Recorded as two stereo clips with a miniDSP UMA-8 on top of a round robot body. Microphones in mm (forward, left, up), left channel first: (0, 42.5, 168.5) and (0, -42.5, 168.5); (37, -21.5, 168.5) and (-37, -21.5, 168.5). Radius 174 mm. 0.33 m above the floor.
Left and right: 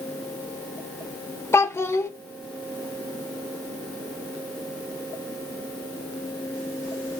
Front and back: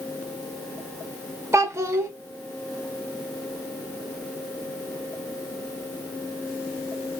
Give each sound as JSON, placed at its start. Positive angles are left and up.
{"t": 1.5, "sound": "a child speaking", "azimuth_deg": 140, "distance_m": 0.7}